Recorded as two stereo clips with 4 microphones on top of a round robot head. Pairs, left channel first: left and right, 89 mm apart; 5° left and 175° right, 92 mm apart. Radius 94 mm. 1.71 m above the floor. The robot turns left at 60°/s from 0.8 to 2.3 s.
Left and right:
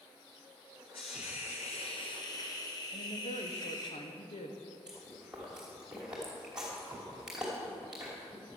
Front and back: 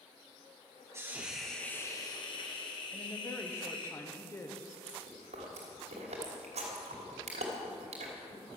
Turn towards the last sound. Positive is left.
turn(degrees=-175)